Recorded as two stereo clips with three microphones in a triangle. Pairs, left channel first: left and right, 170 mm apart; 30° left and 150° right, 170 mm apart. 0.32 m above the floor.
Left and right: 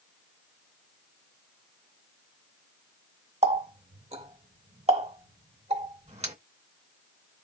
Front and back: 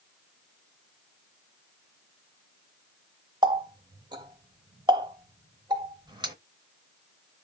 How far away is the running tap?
About 0.9 m.